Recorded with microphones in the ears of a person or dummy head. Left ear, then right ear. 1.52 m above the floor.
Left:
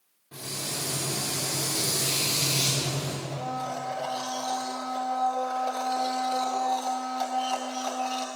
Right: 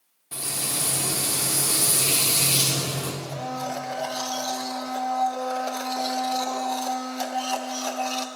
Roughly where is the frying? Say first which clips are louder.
Right 4 dB; right.